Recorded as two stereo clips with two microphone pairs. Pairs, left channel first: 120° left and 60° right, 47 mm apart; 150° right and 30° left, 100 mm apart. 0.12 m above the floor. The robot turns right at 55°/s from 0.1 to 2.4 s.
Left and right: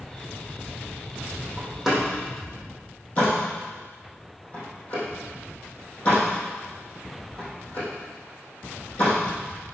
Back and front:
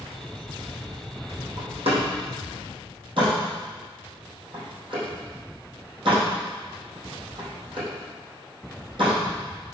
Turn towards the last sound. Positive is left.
turn(degrees=60)